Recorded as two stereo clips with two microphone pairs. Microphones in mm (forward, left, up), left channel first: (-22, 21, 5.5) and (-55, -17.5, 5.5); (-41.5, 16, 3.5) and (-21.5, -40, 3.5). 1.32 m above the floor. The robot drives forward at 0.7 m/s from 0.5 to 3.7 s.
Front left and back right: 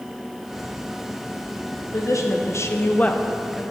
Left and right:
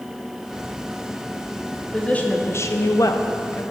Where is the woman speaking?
35° left, 0.8 m; by 3.6 s 145° left, 0.8 m.